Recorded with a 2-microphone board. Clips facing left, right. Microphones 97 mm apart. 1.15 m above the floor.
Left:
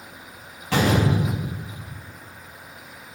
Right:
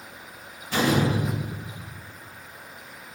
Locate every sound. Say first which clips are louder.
0.7 s a door slam: left 2 dB; 85° left, 5 m